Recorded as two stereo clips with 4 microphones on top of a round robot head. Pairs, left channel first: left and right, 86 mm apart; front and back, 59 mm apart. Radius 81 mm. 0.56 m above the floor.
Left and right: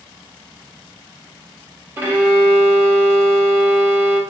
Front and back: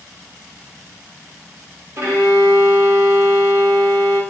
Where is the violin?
145° right, 0.8 m.